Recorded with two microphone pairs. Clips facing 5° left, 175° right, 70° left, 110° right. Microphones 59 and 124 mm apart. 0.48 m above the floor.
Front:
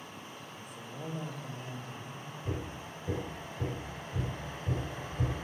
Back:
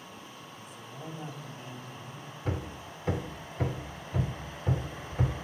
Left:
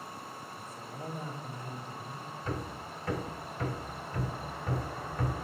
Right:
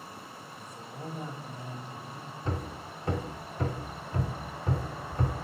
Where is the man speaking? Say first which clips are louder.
Front 1 dB, right 2 dB; 10° right, 1.3 m; by 2.3 s 30° right, 3 m.